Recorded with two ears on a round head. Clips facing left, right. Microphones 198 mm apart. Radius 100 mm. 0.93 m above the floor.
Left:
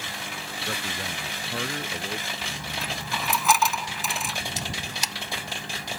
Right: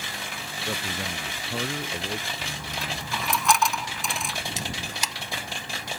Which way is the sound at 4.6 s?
80° right.